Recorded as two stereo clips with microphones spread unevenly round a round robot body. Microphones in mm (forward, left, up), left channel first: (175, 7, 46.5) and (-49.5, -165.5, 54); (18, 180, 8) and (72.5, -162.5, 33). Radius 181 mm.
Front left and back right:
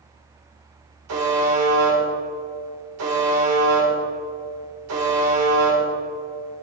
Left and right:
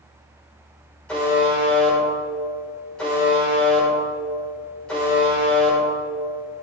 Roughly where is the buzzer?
Behind.